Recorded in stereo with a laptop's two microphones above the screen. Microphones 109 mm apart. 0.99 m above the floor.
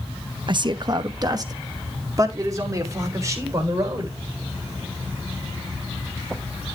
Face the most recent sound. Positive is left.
turn(degrees=-30)  # may be behind; listen again after turning